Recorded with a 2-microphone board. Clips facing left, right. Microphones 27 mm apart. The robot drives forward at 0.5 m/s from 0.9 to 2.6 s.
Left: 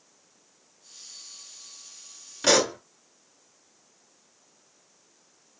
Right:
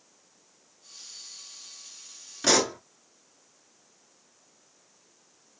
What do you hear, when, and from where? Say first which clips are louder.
2.4 s a pop: left 2 dB; 10° left (ahead or behind), 0.5 m; by 2.8 s 5° left (ahead or behind), 0.6 m